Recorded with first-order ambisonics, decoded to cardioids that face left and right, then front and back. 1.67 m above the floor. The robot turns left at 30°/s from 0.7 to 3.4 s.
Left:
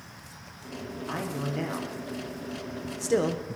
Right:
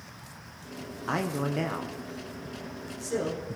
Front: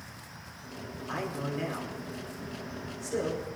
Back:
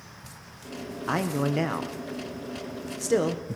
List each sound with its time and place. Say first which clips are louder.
1.1 s a man speaking: right 4 dB, back 7 dB; 150° right, 1.3 m; by 3.4 s 140° left, 1.3 m